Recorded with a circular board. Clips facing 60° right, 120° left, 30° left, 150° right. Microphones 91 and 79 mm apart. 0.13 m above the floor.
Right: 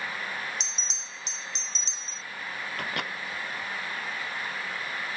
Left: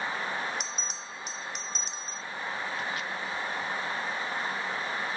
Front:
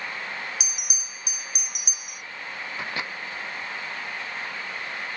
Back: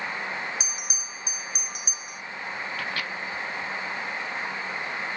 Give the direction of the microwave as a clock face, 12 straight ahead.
1 o'clock.